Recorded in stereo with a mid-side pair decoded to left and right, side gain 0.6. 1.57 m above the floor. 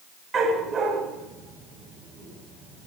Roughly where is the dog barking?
Ahead right.